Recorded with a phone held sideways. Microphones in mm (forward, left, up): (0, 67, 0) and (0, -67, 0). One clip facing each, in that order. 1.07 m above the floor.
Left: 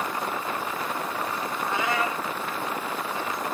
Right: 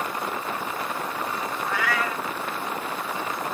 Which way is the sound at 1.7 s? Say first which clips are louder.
Left 1 dB; 25° left (ahead or behind).